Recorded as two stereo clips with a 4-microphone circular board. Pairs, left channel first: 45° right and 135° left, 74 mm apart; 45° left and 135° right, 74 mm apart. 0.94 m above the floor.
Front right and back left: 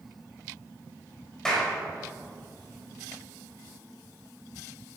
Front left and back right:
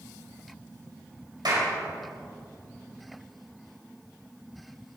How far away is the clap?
About 4 m.